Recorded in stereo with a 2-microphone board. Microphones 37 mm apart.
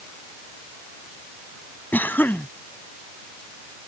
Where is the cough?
60° left (ahead or behind).